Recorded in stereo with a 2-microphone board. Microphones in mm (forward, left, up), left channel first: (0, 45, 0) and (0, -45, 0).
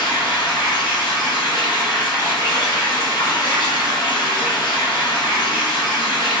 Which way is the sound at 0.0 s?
50° left (ahead or behind).